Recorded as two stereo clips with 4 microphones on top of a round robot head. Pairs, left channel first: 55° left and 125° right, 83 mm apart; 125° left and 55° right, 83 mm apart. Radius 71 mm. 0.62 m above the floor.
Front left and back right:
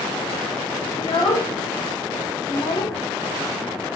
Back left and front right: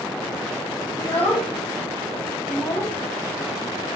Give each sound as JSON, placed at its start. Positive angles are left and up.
{"t": 1.0, "sound": "a child speaking", "azimuth_deg": 65, "distance_m": 1.2}